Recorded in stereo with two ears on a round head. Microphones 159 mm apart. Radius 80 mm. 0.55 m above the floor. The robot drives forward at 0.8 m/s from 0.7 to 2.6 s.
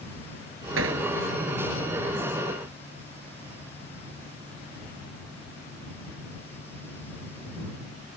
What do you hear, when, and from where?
0.8 s hammering: 85° right